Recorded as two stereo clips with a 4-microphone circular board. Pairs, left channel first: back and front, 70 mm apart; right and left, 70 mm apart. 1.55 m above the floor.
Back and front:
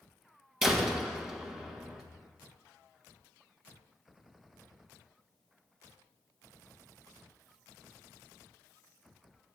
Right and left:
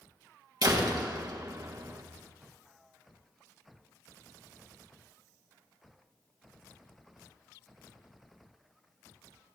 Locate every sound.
0.6 s a door slam: 85° left, 1.5 m